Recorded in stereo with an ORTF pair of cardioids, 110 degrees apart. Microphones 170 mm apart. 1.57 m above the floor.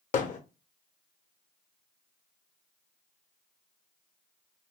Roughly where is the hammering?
Ahead left.